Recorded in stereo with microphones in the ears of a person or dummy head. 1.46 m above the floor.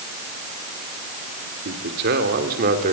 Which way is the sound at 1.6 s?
55° right (ahead or behind).